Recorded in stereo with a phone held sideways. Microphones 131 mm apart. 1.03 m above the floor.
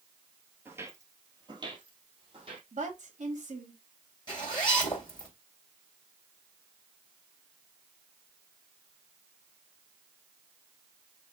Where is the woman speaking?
60° right (ahead or behind), 2.0 m.